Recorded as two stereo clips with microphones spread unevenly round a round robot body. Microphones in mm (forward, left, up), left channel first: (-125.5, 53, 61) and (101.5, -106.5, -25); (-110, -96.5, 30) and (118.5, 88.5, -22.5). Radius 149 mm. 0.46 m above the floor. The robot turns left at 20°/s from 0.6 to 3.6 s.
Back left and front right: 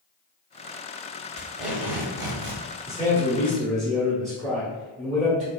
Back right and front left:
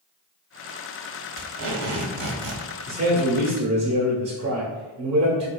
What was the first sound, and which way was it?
Tape being pulled, 45° left.